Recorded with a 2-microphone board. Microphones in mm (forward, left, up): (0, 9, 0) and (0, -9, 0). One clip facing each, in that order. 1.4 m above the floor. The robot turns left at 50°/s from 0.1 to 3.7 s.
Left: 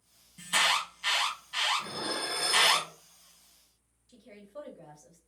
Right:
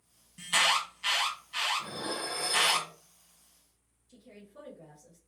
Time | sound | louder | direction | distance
0.4 | an alarm | even | 25° right (ahead or behind) | 1.1 m
1.8 | dishes clattering | left 2 dB | 140° left | 0.7 m
4.1 | a woman speaking | left 5 dB | 75° left (ahead or behind) | 1.3 m